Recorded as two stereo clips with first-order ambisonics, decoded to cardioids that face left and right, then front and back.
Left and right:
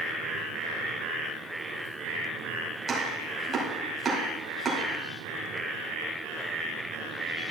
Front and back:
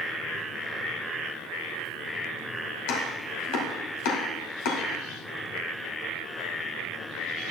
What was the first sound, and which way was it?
Chopping, 15° right.